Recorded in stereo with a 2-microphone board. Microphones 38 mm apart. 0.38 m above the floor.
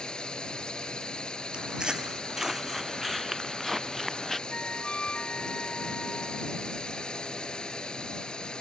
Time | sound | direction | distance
0.0 | a drone | 20° left (ahead or behind) | ?
1.5 | footsteps | 25° right (ahead or behind) | ?
4.5 | a flute | 25° left (ahead or behind) | ?